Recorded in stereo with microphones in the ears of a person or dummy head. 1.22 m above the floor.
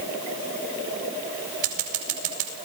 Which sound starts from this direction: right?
Scissors, at 1.6 s.